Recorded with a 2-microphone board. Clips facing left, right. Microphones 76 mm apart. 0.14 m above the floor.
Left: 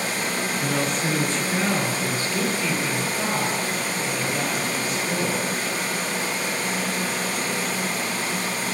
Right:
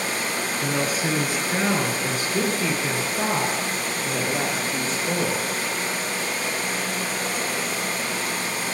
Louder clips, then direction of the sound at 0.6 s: Right 1 dB; centre (ahead or behind).